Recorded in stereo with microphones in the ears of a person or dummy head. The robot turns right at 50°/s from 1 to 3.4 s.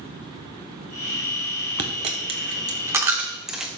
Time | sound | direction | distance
1.8 | a dropped coin | 35° right (ahead or behind) | 0.8 m